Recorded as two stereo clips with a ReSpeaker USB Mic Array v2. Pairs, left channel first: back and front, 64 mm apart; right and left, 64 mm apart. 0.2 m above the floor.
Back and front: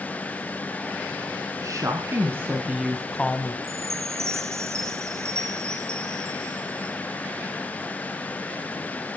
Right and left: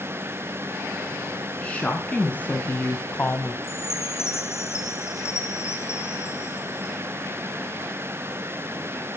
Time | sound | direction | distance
1.6 | a woman speaking | 20° right | 1.9 m
3.6 | a chime | 45° right | 3.5 m